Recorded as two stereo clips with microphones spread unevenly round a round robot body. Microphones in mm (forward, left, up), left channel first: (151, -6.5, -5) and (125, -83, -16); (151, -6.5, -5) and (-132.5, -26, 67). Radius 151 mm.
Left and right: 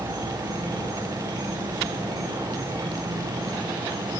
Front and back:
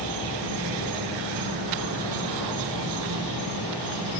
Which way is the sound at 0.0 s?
150° right.